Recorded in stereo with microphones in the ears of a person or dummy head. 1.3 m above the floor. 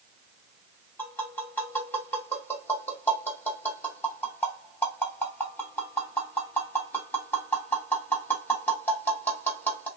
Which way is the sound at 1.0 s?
5° left (ahead or behind).